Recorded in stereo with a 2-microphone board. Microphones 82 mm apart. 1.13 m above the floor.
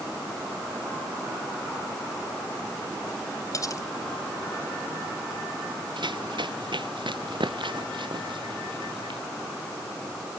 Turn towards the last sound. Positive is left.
turn(degrees=-80)